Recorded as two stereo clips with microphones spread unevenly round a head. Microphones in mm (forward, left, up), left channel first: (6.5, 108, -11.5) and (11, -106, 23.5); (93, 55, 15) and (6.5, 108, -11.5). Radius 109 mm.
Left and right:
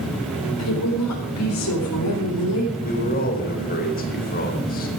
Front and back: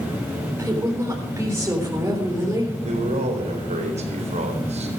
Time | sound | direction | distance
0.6 | a woman speaking | 85° left | 4 m
2.8 | a man speaking | 145° left | 4 m